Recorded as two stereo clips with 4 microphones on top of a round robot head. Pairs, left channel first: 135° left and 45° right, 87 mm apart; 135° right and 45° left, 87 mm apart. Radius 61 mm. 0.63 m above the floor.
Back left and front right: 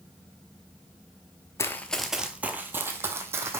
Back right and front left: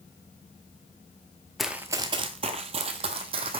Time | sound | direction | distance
1.6 | running footsteps | 135° left | 0.6 m